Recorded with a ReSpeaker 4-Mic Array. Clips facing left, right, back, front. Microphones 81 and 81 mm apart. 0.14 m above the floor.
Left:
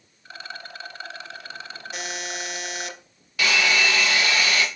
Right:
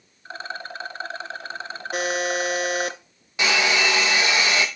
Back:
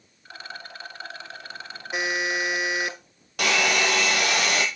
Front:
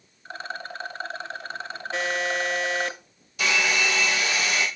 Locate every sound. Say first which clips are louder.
0.2 s a rattle: right 5 dB, front 5 dB; 45° right, 0.9 m
1.9 s a buzzer: right 10 dB, even; 110° right, 0.7 m
3.4 s a hair dryer: right 1 dB, back 2 dB; 160° right, 1.5 m